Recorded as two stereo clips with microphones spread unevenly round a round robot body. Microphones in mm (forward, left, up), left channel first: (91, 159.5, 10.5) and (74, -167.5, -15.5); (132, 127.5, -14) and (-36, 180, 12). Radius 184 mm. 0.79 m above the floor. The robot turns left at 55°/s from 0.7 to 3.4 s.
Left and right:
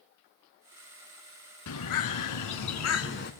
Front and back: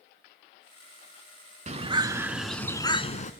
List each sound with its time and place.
1.7 s a bird: 120° left, 1.3 m; by 3.3 s 30° left, 1.3 m